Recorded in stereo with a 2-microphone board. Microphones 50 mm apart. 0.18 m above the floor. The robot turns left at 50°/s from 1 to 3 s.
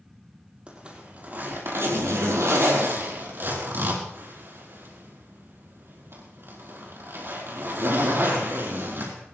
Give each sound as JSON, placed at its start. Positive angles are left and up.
{"t": 0.7, "sound": "a zipper", "side_deg": -25, "distance_m": 5.0}